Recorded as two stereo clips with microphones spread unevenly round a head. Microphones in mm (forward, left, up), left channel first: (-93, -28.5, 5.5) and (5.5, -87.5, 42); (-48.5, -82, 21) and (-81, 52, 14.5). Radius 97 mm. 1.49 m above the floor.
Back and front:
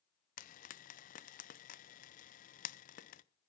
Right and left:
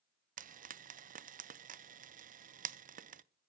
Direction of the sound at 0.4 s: 130° left.